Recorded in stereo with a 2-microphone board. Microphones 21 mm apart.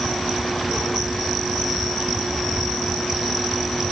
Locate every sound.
Only background noise.